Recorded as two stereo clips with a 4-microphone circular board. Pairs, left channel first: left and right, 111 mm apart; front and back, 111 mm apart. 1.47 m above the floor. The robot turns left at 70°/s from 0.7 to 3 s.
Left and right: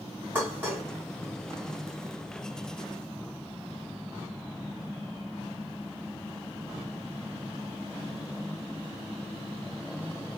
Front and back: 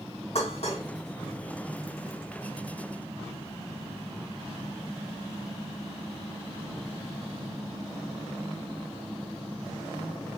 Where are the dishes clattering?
15° right, 1.7 m; by 0.8 s 25° right, 1.7 m.